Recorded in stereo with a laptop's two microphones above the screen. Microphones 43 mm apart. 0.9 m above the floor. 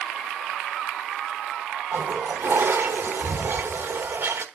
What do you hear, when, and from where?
1.9 s a toilet flushing: 60° right (ahead or behind), 1.2 m